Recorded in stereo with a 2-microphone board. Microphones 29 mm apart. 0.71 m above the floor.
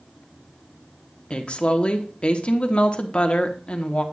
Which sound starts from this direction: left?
A woman speaking, at 1.3 s.